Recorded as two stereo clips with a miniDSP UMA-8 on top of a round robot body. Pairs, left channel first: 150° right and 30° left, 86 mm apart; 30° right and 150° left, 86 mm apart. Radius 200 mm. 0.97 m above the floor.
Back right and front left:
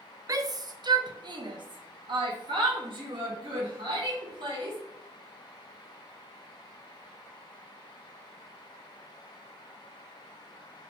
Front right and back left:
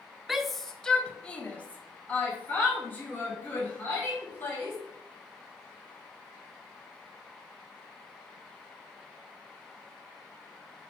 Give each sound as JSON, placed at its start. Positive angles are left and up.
{"t": 0.3, "sound": "a shout", "azimuth_deg": 65, "distance_m": 0.9}